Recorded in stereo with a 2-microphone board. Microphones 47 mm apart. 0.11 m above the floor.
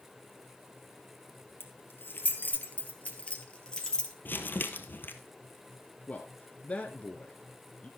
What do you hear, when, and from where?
1.6 s keys jangling: 55° left (ahead or behind), 1.8 m; by 4.1 s 15° left (ahead or behind), 1.9 m
4.2 s crumpling: 50° left (ahead or behind), 1.2 m
6.1 s a man speaking: 30° left (ahead or behind), 1.2 m